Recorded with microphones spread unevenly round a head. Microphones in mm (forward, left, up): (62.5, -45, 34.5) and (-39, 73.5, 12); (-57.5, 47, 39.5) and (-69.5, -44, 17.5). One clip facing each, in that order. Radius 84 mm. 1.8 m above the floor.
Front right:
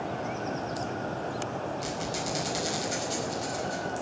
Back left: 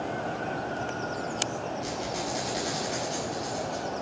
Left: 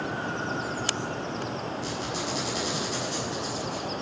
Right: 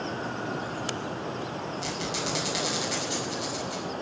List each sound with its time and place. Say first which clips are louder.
1.8 s a squeak: back left 1 dB, even; 85° right, 5 m